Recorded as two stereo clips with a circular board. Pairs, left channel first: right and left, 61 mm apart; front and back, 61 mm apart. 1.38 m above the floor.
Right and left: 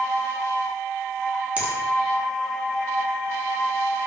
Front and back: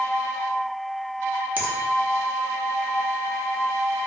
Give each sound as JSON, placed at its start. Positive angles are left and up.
{"t": 1.6, "sound": "a finger snap", "azimuth_deg": 135, "distance_m": 0.6}